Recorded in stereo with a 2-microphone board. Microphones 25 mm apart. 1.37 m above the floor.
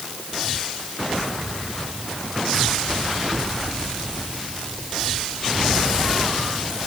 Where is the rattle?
No rattle in this recording.